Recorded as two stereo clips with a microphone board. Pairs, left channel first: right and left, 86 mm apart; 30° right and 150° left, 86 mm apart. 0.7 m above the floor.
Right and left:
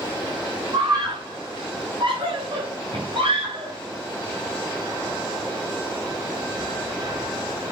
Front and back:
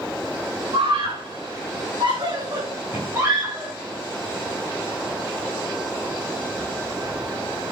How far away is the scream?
About 5 m.